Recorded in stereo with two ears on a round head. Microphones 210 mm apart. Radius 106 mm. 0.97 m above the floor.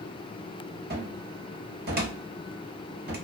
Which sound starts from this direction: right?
A cupboard door, at 0.9 s.